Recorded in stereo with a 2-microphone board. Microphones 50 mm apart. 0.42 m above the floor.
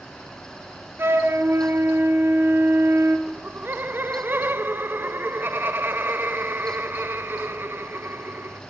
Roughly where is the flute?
Right.